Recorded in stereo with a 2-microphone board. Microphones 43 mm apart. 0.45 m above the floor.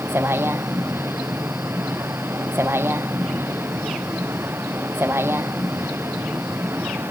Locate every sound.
0.0 s a vehicle: 75° right (ahead or behind)